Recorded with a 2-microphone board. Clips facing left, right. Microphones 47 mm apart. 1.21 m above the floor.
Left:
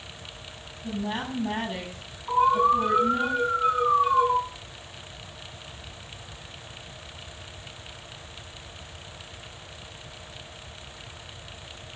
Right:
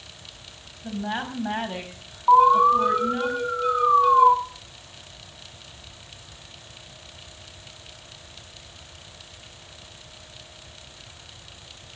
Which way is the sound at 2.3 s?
70° right (ahead or behind).